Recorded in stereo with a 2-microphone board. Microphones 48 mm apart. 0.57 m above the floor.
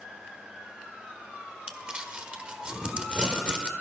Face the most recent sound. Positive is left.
turn(degrees=-20)  # may be behind; listen again after turning